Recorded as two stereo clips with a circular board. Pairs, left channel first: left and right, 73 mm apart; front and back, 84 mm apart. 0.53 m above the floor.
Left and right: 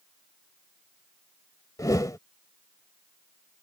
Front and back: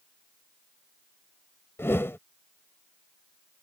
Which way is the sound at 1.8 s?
60° left.